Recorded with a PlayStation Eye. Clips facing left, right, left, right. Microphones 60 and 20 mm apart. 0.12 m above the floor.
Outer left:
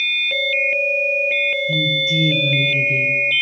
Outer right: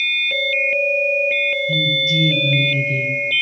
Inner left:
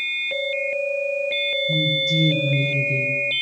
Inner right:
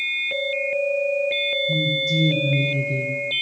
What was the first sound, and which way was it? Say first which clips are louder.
A woman speaking: even, inner left 1 dB; 10° left (ahead or behind).